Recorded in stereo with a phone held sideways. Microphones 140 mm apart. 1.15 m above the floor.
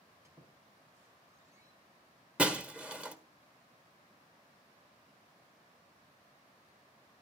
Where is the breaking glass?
10° right (ahead or behind), 1.3 m.